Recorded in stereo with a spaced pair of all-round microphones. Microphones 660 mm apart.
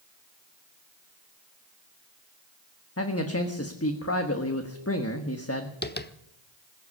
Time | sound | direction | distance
3.0 | a man speaking | 20° left (ahead or behind) | 1.3 m
5.8 | tapping | 15° left (ahead or behind) | 0.9 m